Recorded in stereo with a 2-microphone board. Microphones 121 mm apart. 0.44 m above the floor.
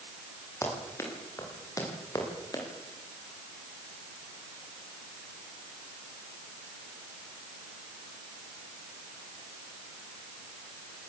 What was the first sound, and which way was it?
Running footsteps, 25° left (ahead or behind).